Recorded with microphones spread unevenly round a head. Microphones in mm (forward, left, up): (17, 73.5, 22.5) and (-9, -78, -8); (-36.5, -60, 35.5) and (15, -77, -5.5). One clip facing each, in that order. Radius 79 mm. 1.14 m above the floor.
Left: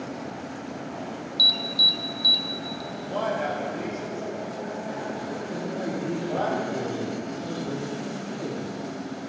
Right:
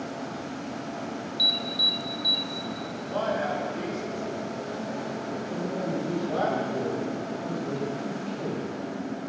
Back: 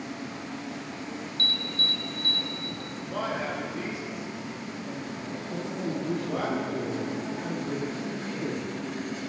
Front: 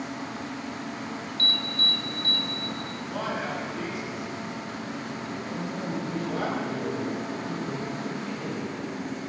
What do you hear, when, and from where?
1.4 s an alarm: 80° left, 0.7 m
2.9 s a man speaking: 140° left, 4.5 m
5.5 s a man speaking: 155° left, 1.9 m